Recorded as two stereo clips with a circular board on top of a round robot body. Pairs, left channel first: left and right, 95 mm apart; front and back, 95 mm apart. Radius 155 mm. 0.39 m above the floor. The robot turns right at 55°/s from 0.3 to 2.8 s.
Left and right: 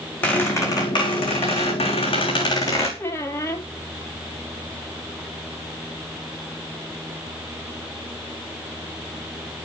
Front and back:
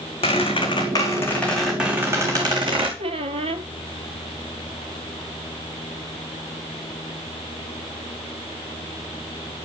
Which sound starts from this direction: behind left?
A squeak, at 3.0 s.